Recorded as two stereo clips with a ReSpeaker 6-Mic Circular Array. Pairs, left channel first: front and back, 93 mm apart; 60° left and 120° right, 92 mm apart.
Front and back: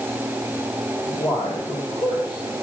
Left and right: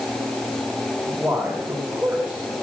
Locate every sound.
1.1 s a man speaking: 40° right, 2.5 m